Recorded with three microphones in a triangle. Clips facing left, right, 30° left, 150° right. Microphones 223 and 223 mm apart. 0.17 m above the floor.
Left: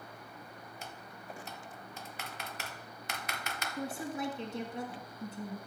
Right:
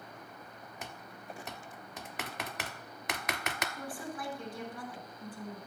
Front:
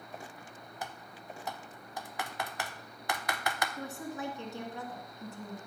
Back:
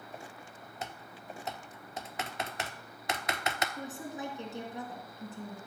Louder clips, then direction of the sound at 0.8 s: Right 3 dB, back 1 dB; 80° right.